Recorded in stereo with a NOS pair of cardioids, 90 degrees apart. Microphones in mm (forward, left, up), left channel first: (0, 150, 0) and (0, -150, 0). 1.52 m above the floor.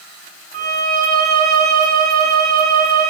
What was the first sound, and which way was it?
A violin, 35° right.